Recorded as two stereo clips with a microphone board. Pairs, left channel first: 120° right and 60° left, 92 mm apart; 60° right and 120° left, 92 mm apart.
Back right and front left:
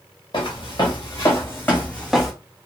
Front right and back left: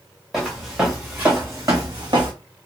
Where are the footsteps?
150° right, 1.6 m; by 2.3 s 145° left, 1.0 m.